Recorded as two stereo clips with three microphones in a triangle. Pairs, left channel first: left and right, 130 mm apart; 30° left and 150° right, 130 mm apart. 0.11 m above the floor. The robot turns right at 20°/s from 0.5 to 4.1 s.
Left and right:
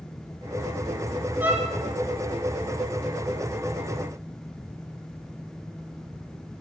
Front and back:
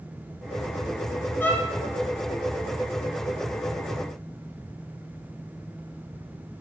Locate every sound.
1.4 s a violin: 30° right, 1.0 m; by 1.7 s 25° right, 1.0 m